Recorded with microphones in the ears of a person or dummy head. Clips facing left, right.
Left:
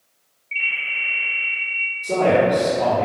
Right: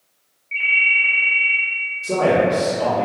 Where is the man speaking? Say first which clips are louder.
Even; 5° right (ahead or behind), 1.5 m.